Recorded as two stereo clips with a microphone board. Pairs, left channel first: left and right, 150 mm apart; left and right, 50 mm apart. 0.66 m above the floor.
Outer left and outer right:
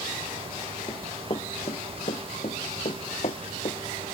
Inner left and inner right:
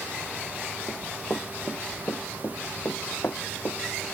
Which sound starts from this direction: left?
Running footsteps, at 0.9 s.